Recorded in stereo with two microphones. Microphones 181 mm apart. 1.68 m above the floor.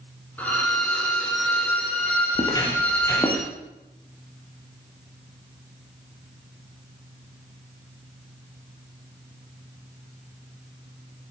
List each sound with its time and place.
0.4 s a violin: 10° left (ahead or behind), 4.5 m
2.4 s footsteps: 20° left (ahead or behind), 2.5 m; by 3.5 s 15° left (ahead or behind), 3 m